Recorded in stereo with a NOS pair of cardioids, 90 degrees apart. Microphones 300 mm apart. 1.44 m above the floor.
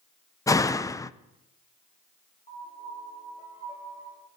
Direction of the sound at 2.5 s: 25° left.